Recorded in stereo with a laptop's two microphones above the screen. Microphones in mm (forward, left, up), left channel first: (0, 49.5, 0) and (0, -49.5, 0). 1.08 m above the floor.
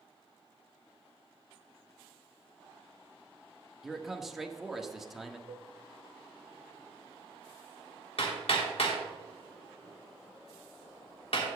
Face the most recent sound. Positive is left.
turn(degrees=70)  # may be behind; listen again after turning